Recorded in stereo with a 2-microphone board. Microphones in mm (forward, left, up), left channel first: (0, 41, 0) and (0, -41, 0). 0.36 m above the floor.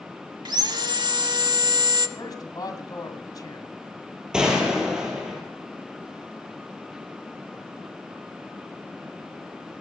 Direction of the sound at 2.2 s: 55° left (ahead or behind).